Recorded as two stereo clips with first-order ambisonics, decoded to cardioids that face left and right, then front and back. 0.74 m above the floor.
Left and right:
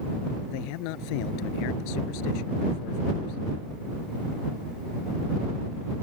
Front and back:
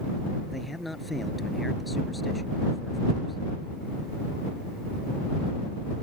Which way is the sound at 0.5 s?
85° left.